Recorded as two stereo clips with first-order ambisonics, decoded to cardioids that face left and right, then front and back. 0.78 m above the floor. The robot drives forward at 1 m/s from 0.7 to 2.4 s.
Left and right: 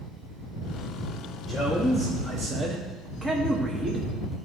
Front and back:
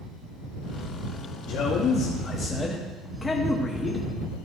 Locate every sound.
1.5 s a man speaking: 10° right, 1.2 m; by 4.1 s 55° right, 0.7 m